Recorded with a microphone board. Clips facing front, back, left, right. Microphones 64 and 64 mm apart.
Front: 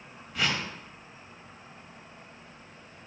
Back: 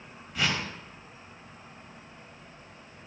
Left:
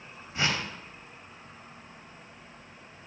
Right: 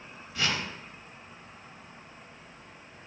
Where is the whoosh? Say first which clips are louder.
Even, left 1 dB; 90° left, 0.5 m.